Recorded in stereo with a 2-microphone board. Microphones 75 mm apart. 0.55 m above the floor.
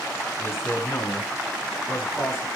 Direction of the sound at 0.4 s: 35° left (ahead or behind).